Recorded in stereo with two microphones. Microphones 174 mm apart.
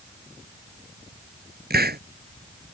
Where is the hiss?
65° right (ahead or behind).